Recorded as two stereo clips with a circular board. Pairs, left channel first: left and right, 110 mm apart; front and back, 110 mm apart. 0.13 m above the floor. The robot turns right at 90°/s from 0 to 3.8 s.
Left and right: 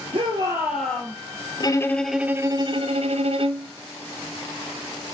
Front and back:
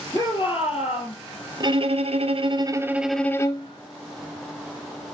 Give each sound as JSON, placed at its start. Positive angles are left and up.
{"t": 0.1, "sound": "a shout", "azimuth_deg": -65, "distance_m": 3.5}
{"t": 1.6, "sound": "a violin", "azimuth_deg": 135, "distance_m": 0.7}